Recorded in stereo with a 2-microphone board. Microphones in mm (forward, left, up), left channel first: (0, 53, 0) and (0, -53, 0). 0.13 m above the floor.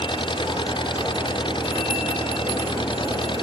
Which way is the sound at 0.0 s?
50° left (ahead or behind).